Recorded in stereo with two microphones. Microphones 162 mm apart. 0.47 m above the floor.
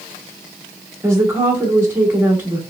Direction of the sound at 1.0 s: 15° right (ahead or behind).